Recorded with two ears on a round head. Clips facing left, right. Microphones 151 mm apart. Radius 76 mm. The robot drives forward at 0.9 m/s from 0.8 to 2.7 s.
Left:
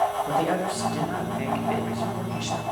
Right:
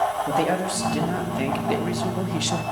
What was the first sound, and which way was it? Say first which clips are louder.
A man speaking: right 2 dB; 30° right (ahead or behind).